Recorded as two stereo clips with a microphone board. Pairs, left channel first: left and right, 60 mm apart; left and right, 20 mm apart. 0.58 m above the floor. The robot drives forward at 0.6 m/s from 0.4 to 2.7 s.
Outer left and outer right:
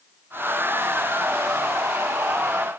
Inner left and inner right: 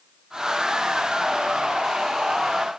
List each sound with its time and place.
Only background noise.